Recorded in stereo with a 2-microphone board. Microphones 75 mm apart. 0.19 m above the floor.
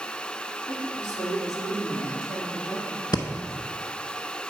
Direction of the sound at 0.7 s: 40° right (ahead or behind).